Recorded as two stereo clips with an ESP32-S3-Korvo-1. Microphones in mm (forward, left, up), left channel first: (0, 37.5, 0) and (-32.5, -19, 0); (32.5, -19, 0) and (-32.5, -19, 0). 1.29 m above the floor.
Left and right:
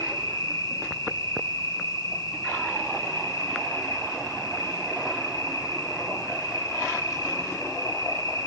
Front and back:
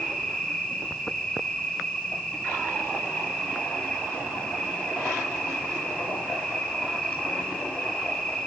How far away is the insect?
About 4.5 m.